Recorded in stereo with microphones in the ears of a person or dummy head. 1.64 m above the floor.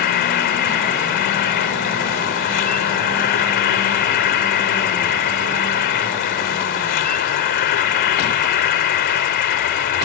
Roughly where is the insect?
Left.